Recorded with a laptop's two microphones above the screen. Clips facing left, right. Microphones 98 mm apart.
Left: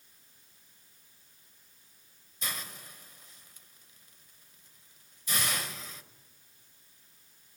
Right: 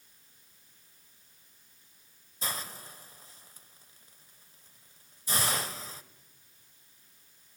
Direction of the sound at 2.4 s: 35° right (ahead or behind).